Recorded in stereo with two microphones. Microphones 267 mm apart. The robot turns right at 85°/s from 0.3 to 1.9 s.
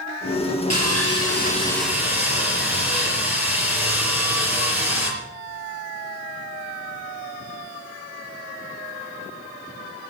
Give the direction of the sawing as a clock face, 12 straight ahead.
9 o'clock.